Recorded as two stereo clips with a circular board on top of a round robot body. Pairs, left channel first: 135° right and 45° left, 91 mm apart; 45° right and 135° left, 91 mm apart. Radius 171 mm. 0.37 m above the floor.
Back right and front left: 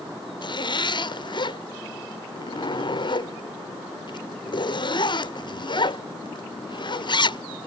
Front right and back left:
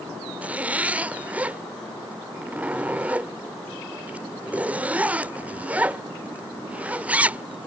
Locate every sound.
0.4 s a zipper: 150° right